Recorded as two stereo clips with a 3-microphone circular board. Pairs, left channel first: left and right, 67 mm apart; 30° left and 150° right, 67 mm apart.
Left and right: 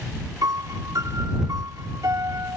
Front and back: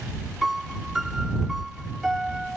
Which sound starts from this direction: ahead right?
A piano, at 0.4 s.